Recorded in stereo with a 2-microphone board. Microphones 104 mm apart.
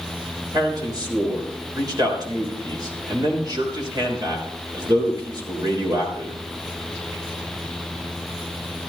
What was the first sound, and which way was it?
A man speaking, 40° right (ahead or behind).